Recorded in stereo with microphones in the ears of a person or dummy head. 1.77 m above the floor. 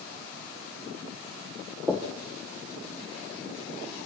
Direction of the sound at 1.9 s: Centre (ahead or behind).